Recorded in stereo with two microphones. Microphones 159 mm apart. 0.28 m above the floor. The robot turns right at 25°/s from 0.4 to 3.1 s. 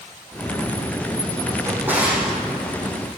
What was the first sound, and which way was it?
A drawer, 20° right (ahead or behind).